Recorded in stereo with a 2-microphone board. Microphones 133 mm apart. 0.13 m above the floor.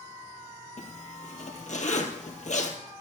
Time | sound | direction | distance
0.8 | a zipper | 65° left (ahead or behind) | 2.5 m